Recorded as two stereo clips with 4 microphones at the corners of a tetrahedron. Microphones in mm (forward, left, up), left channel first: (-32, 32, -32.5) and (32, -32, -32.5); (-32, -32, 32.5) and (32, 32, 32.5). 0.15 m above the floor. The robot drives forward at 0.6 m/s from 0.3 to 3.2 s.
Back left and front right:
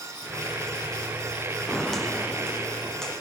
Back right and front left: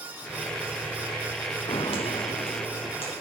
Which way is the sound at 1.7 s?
135° right.